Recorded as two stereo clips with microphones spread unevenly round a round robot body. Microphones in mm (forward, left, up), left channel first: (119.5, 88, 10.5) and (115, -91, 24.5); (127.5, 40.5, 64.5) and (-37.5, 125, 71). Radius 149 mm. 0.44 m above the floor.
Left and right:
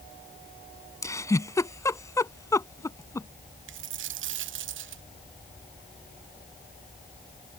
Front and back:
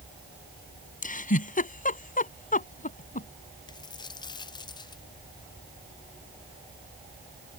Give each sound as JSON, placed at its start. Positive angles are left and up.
{"t": 1.0, "sound": "a giggle", "azimuth_deg": 15}
{"t": 3.7, "sound": "a dropped coin", "azimuth_deg": -100}